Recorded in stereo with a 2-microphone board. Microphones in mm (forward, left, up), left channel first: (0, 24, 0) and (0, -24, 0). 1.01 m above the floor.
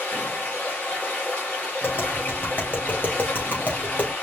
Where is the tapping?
40° left (ahead or behind), 2.5 m.